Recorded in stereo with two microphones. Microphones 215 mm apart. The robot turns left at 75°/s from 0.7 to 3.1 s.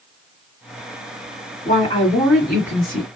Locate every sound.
1.6 s a woman speaking: 65° left, 2 m; by 3.1 s 40° right, 2 m